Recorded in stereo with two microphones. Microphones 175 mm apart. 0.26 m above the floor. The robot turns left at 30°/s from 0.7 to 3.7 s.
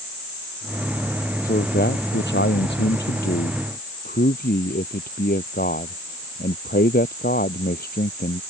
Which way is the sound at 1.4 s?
125° left.